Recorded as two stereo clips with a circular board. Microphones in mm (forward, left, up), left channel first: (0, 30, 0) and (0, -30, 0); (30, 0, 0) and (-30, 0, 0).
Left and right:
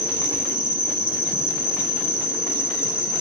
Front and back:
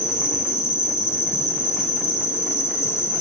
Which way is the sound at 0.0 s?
30° right.